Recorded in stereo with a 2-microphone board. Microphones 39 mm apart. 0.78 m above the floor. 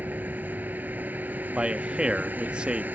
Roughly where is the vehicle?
Right.